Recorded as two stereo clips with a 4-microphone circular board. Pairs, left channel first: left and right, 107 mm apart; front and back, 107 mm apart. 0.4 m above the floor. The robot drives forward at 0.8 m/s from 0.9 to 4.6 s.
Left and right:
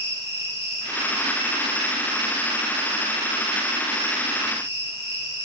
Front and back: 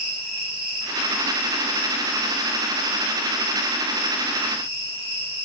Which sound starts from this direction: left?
An insect, at 0.0 s.